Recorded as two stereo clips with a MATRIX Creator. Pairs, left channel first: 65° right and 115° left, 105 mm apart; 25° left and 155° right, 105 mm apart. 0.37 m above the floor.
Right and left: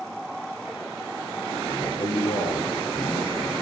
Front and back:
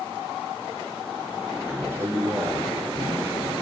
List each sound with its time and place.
1.6 s a man speaking: 95° right, 6.5 m